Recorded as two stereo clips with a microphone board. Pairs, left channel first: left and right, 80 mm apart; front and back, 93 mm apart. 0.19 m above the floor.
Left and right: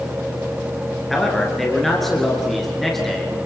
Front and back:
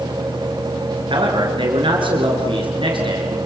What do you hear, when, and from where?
1.1 s a man speaking: 175° left, 3 m